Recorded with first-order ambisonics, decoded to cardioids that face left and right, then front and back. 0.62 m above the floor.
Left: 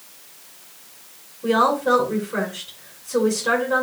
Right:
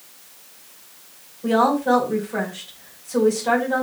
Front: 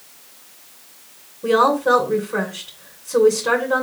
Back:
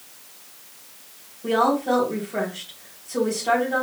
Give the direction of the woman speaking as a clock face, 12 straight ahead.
12 o'clock.